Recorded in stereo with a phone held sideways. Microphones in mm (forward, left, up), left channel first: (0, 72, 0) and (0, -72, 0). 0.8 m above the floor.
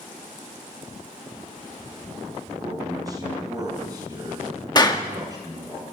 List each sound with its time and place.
2.6 s a man speaking: 25° right (ahead or behind), 6.5 m
4.8 s a clap: 30° left (ahead or behind), 1.4 m